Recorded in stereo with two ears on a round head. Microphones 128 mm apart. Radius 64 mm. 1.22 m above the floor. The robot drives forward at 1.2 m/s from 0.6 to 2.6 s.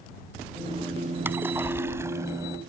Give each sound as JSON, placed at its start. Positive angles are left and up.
{"t": 1.2, "sound": "a splash", "side_deg": -15}